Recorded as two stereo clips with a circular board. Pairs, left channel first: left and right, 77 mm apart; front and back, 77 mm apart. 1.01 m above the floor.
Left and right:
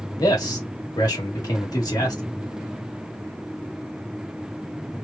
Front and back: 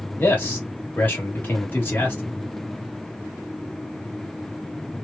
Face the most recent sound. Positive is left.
turn(degrees=60)